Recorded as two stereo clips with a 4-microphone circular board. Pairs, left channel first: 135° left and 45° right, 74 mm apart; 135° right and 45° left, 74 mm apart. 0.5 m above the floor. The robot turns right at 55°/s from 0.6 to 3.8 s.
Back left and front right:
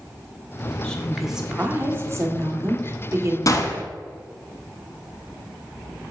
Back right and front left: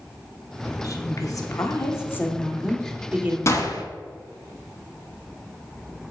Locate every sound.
0.8 s a woman speaking: 155° right, 1.2 m; by 3.4 s 15° right, 1.2 m
3.5 s a gunshot: 175° left, 0.9 m; by 3.8 s 165° right, 0.9 m